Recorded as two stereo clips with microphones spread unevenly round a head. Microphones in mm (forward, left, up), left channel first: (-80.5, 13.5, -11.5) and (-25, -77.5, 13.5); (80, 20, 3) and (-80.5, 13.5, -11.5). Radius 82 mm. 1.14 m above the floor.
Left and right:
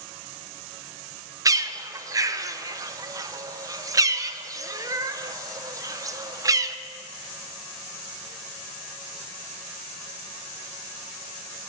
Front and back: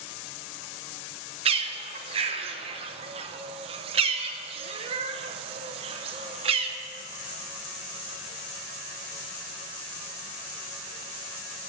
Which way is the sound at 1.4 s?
125° right.